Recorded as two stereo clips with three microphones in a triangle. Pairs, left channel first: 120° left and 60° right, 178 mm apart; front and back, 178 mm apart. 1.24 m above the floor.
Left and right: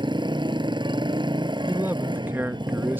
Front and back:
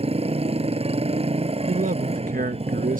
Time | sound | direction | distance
0.0 | a motorcycle | 125° right | ?
1.7 | a man speaking | 140° right | ?